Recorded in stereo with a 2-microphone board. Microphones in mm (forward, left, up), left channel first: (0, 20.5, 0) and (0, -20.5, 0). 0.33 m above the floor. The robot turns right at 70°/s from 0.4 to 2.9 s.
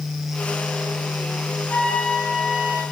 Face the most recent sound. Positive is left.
turn(degrees=-140)